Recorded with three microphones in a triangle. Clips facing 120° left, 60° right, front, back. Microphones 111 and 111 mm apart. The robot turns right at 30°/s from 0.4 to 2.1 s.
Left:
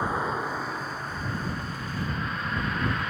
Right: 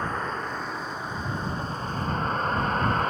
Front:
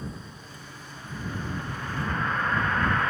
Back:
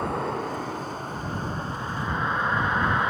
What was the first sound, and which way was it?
A vehicle, 160° right.